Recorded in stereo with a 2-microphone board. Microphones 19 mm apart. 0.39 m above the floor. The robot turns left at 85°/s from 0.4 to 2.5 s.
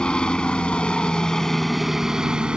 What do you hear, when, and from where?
0.0 s a helicopter: 115° left; by 2.6 s 60° right